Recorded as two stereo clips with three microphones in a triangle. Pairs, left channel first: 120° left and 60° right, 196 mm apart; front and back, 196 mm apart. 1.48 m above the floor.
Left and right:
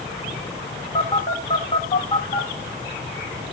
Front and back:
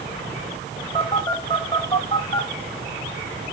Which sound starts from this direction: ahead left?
A phone buzzing, at 0.9 s.